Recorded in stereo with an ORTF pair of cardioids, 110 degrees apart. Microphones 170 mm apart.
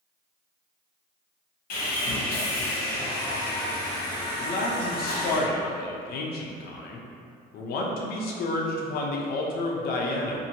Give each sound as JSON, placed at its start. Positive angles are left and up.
{"t": 1.7, "sound": "sawing", "azimuth_deg": 60, "distance_m": 1.0}
{"t": 4.4, "sound": "a man speaking", "azimuth_deg": 65, "distance_m": 0.6}